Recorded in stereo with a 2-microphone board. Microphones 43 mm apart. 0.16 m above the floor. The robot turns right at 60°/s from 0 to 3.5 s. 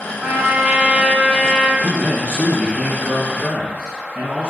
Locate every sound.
0.2 s a trumpet: 60° right, 0.7 m; by 1.7 s 30° left, 0.7 m
1.8 s a man speaking: 125° left, 2.0 m; by 4.5 s 135° right, 2.0 m